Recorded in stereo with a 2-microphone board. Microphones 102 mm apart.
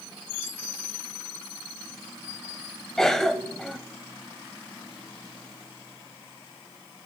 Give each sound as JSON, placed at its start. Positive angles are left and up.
{"t": 3.0, "sound": "a cough", "side_deg": 5, "distance_m": 1.2}